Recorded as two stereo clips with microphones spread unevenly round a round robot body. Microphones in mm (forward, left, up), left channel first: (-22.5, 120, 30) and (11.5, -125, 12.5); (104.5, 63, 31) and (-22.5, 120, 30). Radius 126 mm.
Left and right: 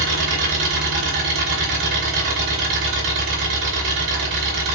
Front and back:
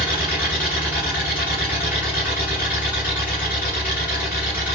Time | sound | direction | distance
0.0 | an engine running | 125° right | 2.0 m